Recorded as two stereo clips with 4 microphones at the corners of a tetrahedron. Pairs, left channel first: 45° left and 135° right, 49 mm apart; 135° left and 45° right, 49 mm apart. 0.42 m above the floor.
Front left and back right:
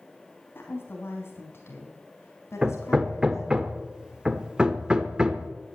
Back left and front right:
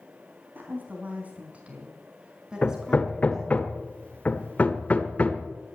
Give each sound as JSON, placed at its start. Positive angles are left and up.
{"t": 0.6, "sound": "a woman speaking", "azimuth_deg": 5, "distance_m": 3.5}
{"t": 2.6, "sound": "hammering", "azimuth_deg": 165, "distance_m": 1.2}